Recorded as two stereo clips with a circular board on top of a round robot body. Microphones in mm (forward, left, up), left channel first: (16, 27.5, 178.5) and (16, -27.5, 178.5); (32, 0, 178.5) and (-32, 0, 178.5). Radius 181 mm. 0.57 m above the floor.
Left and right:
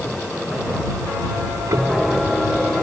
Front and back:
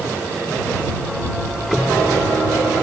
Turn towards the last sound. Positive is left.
turn(degrees=-90)